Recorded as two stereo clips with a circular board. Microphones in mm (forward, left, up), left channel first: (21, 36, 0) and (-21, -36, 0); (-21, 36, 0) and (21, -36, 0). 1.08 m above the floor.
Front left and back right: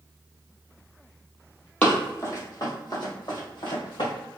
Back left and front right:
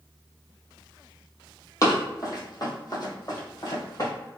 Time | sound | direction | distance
1.8 | running footsteps | 120° left | 1.3 m